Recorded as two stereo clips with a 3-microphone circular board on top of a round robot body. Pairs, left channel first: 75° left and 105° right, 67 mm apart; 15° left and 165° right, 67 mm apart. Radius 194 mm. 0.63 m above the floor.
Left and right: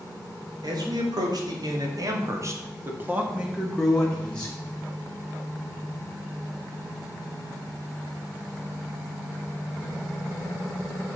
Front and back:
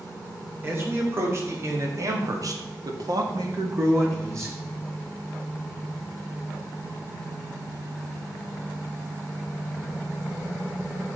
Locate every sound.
0.6 s a man speaking: 105° right, 4 m; by 4.5 s 145° left, 3 m